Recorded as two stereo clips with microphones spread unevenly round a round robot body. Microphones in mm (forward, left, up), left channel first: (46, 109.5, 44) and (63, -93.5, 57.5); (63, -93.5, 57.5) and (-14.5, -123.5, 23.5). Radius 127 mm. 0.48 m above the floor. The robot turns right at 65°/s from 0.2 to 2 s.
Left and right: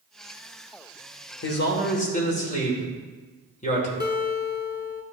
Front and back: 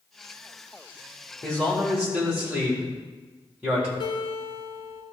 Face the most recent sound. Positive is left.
turn(degrees=55)